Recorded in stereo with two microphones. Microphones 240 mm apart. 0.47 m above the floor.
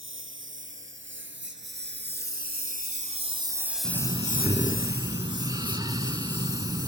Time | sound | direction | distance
0.0 | a lawn mower | 55° right (ahead or behind) | ?
3.8 | breathing | 15° right (ahead or behind) | ?